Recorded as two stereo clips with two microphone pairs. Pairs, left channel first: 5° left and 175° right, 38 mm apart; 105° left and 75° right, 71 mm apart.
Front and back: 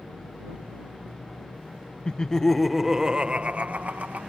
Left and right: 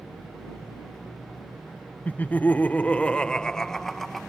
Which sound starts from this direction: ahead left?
Laughter, at 2.0 s.